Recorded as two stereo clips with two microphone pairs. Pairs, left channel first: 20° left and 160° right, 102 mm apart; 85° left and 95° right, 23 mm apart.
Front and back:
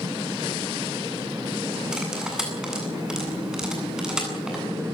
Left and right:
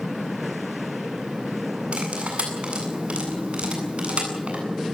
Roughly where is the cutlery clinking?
Right.